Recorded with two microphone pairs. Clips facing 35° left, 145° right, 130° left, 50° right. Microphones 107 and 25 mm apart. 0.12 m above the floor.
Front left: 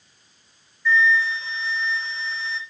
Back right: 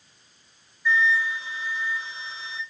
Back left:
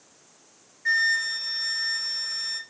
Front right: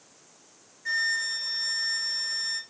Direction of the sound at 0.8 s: 155° left.